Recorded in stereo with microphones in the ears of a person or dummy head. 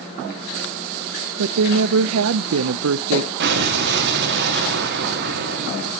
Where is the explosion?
65° right (ahead or behind), 1.6 m.